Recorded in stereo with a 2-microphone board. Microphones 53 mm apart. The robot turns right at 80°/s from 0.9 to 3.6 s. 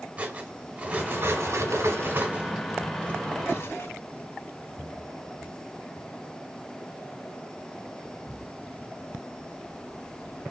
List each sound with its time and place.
0.2 s cutlery clinking: 35° right (ahead or behind), 1.5 m; by 3.9 s 60° left (ahead or behind), 1.5 m